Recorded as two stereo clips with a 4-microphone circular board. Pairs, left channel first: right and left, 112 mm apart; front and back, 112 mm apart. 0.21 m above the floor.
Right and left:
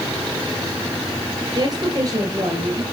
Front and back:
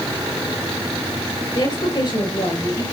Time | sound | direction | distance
1.6 | a woman speaking | 40° left | 3.5 m